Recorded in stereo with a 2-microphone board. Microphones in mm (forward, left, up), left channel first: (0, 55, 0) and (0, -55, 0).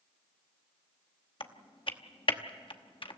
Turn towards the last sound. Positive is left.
turn(degrees=50)  # may be behind; listen again after turning